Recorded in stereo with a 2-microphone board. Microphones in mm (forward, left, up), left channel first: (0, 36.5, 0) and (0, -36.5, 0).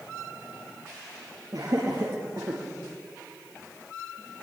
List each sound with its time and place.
1.5 s laughter: 60° right (ahead or behind), 5.5 m